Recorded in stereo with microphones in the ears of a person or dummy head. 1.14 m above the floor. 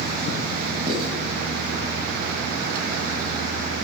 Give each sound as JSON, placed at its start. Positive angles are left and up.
{"t": 0.9, "sound": "writing", "side_deg": -30, "distance_m": 3.5}